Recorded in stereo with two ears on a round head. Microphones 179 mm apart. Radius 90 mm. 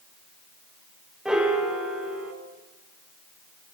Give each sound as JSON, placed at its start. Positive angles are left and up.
{"t": 1.2, "sound": "a piano", "side_deg": -5, "distance_m": 0.8}